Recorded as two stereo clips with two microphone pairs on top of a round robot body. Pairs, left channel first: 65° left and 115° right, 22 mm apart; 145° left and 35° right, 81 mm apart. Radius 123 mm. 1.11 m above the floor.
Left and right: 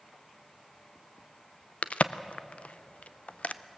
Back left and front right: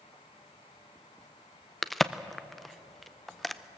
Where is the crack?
55° left, 0.6 m.